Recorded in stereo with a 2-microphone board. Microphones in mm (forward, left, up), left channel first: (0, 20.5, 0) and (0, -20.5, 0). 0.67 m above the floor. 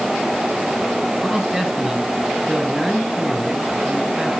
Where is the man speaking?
10° right (ahead or behind), 6 m.